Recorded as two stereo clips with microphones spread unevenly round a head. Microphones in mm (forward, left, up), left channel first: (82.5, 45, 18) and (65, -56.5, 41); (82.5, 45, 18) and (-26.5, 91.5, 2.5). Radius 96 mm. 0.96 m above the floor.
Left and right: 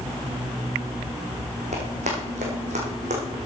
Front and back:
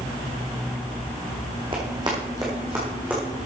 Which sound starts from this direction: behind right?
Running footsteps, at 1.7 s.